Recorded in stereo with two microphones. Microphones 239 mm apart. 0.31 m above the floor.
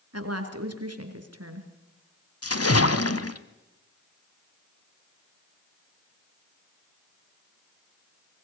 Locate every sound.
0.1 s a woman speaking: 75° right (ahead or behind), 4 m
2.4 s a splash: 70° left (ahead or behind), 1.3 m